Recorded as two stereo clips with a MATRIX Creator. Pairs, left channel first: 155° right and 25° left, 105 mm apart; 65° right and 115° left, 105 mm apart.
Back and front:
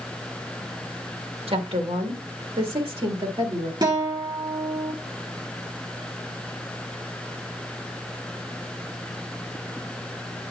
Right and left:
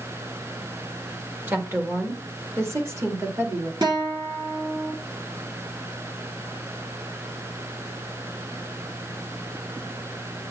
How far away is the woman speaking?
About 1.2 m.